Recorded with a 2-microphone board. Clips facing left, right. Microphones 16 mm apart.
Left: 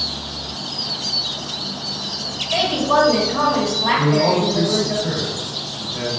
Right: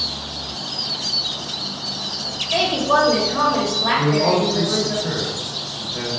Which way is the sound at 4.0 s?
15° right (ahead or behind).